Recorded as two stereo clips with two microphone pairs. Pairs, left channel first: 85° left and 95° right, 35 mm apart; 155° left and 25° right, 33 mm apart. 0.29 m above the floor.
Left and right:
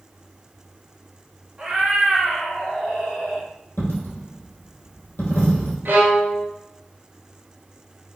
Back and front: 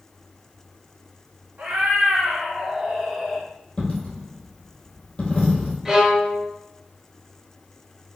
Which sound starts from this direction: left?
A dropped coin, at 3.8 s.